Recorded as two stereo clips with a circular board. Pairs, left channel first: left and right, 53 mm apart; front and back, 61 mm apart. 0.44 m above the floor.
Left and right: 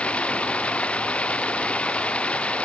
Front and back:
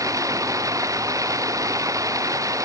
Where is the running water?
160° left.